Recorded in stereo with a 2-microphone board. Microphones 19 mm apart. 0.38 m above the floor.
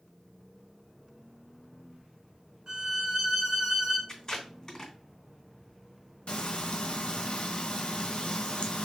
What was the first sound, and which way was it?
A violin, 40° right (ahead or behind).